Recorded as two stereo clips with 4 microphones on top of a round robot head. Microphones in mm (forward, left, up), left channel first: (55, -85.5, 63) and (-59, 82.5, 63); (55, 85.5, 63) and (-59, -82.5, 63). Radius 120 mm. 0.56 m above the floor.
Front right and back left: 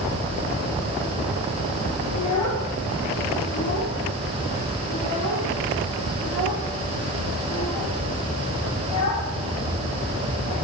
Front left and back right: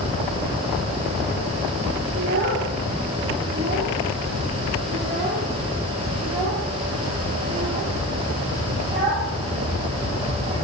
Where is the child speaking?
60° right, 9.5 m; by 10.6 s 45° right, 13 m.